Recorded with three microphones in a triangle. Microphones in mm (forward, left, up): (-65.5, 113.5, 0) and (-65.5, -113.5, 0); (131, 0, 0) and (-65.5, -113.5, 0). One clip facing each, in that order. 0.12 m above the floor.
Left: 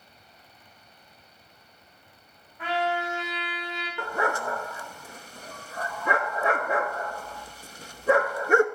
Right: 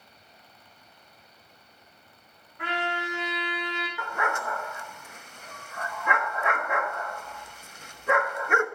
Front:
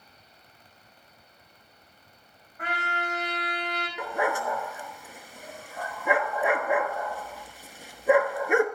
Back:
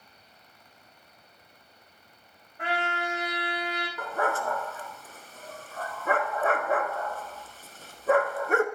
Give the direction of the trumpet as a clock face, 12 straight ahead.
3 o'clock.